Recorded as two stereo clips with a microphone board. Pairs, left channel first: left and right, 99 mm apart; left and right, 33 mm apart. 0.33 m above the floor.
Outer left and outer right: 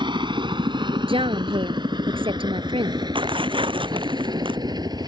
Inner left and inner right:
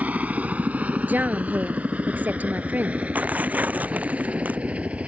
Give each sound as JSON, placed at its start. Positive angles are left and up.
{"t": 0.0, "sound": "a helicopter", "side_deg": -55}
{"t": 1.1, "sound": "a woman speaking", "side_deg": -75}
{"t": 3.1, "sound": "tearing paper", "side_deg": -65}